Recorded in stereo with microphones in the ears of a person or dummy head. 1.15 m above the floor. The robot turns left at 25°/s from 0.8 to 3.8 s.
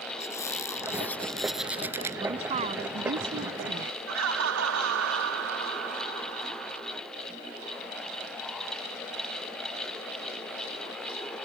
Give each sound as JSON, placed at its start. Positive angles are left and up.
{"t": 0.2, "sound": "a squeak", "azimuth_deg": 15}
{"t": 2.2, "sound": "a woman speaking", "azimuth_deg": -25}
{"t": 4.1, "sound": "laughter", "side_deg": -75}